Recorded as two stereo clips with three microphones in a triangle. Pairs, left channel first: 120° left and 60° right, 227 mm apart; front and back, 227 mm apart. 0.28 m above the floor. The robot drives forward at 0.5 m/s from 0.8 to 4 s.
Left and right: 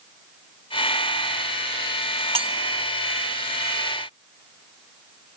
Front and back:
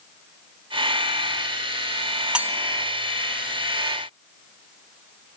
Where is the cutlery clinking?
95° right, 0.5 m; by 2.6 s 120° right, 0.6 m.